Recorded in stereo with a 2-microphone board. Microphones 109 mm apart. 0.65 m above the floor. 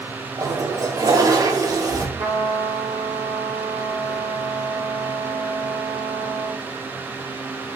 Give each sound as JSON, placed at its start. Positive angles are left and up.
{"t": 0.4, "sound": "a toilet flushing", "side_deg": -35, "distance_m": 0.5}
{"t": 2.2, "sound": "a trumpet", "side_deg": -75, "distance_m": 1.8}